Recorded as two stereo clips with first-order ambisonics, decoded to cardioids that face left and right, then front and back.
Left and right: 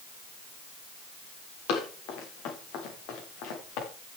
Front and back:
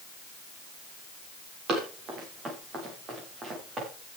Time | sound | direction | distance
1.7 | running footsteps | 125° left | 8.5 m